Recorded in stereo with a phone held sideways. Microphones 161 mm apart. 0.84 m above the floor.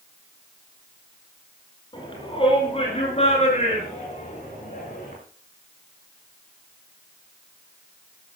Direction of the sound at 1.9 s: 30° left (ahead or behind).